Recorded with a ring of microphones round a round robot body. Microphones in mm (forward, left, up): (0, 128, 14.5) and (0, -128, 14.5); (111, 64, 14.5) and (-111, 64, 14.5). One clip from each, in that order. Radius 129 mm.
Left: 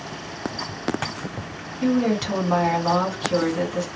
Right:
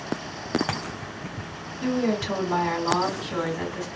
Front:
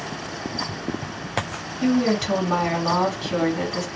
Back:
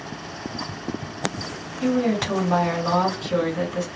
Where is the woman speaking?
70° left, 2 m.